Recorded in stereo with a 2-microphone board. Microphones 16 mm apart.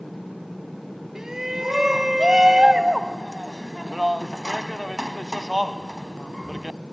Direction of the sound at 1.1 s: 35° right (ahead or behind).